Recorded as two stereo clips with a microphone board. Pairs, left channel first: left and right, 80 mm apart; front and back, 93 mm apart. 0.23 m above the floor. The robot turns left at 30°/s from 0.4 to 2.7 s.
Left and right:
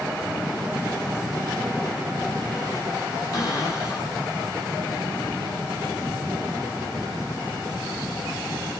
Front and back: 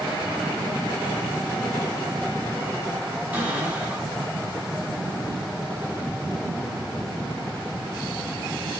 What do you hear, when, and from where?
3.3 s a cupboard door: 110° left, 2 m